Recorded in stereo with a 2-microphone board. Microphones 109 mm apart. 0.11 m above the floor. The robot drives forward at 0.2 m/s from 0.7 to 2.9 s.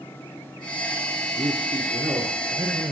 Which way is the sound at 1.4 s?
30° right (ahead or behind).